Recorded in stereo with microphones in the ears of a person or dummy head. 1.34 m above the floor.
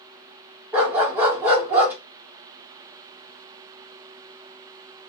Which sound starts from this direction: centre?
A dog barking, at 0.7 s.